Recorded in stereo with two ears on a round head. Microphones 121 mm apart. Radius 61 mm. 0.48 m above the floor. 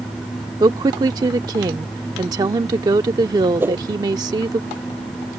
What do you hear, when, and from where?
0.6 s a woman speaking: 30° right (ahead or behind)
3.6 s a whoosh: 15° right (ahead or behind)